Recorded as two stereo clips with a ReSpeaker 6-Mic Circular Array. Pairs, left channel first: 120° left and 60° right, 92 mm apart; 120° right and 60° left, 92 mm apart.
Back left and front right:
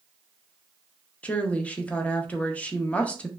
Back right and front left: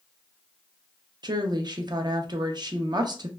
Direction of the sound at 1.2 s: 50° left.